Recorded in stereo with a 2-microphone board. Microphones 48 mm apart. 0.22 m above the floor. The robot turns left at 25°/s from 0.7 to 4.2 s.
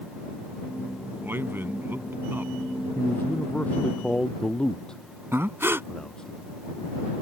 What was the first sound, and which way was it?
A man speaking, 80° right.